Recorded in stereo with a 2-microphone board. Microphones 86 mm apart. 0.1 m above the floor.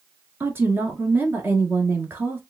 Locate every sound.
0.4 s a woman speaking: 25° right (ahead or behind), 1.3 m